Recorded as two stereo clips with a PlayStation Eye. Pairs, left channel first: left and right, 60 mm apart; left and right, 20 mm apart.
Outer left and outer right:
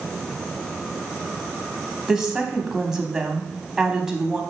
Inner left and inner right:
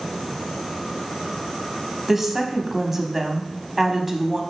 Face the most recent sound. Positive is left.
turn(degrees=-10)  # may be behind; listen again after turning